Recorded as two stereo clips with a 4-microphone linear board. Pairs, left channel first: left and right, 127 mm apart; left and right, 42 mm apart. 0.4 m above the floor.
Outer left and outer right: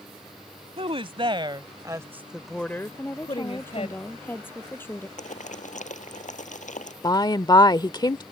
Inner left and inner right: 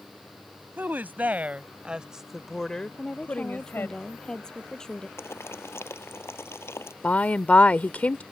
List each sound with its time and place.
0.8 s a woman speaking: 50° right (ahead or behind); by 4.0 s 60° left (ahead or behind)
3.0 s a woman speaking: 15° left (ahead or behind)
5.2 s boiling: 75° left (ahead or behind)
7.0 s a woman speaking: 35° left (ahead or behind)